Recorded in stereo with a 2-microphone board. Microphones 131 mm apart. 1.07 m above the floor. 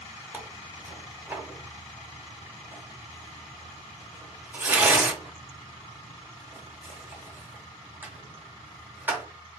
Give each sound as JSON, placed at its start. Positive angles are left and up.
{"t": 0.3, "sound": "tearing paper", "side_deg": -15, "distance_m": 0.9}